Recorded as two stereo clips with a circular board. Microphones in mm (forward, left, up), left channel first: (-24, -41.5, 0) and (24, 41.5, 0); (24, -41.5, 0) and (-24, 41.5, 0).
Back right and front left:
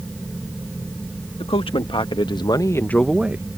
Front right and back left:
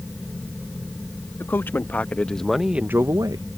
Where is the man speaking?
125° right; by 3.5 s 115° left.